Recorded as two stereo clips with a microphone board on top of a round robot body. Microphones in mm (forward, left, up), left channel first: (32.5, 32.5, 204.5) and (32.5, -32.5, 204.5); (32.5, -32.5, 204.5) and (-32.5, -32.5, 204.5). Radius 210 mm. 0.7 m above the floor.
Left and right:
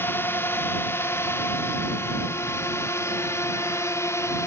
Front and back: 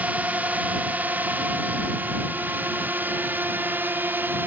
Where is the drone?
125° left.